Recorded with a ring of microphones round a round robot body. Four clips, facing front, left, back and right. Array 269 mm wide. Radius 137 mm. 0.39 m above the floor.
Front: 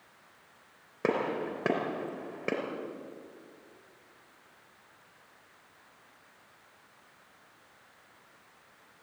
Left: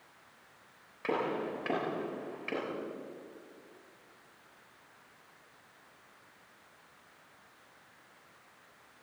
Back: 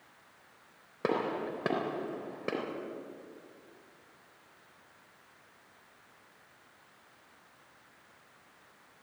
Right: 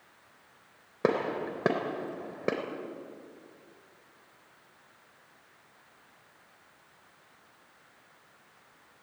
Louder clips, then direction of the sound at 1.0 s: Right 4 dB, front 2 dB; 85° right.